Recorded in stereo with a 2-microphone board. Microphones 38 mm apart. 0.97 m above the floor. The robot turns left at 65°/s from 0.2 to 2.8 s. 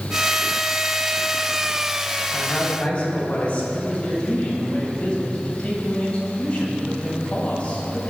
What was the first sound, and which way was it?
A woman speaking, straight behind.